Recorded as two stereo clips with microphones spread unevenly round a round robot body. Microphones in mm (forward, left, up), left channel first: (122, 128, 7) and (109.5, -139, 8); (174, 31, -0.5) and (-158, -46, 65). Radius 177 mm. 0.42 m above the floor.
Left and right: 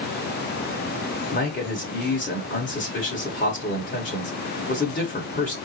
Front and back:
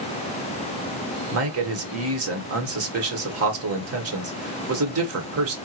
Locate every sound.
1.3 s a man speaking: 145° left, 1.3 m